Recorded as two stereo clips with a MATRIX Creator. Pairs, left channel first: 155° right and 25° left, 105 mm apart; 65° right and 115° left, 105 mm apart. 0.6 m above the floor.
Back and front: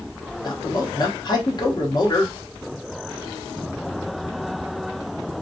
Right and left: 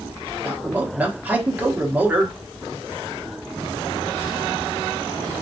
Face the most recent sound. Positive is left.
turn(degrees=180)